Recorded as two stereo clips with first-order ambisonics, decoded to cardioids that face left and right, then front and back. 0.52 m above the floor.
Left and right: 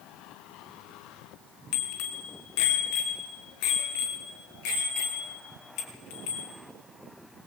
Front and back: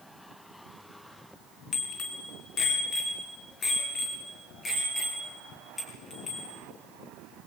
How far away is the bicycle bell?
About 4 m.